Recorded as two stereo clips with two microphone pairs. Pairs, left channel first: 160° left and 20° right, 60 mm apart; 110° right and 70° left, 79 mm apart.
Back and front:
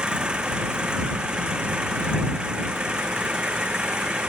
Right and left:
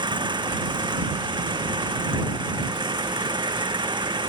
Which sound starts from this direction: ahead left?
An engine running, at 0.0 s.